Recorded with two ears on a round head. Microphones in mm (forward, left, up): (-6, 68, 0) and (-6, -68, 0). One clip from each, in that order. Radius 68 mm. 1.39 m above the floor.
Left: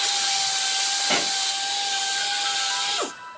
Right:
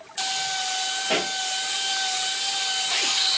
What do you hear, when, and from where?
1.1 s a pop: 40° left (ahead or behind), 2 m